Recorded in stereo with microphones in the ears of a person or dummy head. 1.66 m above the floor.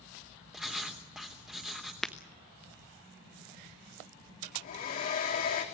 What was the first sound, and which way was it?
Writing, centre (ahead or behind).